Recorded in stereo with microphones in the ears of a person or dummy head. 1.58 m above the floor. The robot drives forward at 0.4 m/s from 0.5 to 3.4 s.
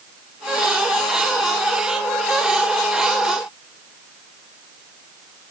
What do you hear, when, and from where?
Only background noise.